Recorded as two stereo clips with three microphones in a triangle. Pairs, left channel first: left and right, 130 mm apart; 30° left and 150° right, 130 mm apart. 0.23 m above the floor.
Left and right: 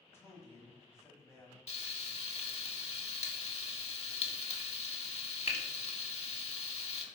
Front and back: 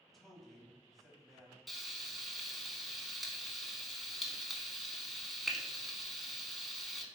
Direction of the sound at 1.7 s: 120° left.